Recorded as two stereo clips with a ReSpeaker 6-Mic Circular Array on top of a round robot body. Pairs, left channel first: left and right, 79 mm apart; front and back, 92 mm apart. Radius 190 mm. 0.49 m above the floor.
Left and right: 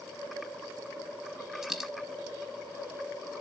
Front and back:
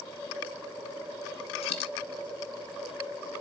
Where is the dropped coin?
5° right, 1.0 m.